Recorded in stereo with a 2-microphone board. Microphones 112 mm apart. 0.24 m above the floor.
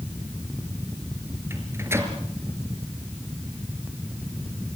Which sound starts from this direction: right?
A microwave, at 1.5 s.